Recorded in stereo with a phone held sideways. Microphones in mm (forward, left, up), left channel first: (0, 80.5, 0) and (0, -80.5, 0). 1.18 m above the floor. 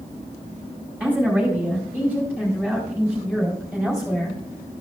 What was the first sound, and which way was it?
A woman speaking, 10° right (ahead or behind).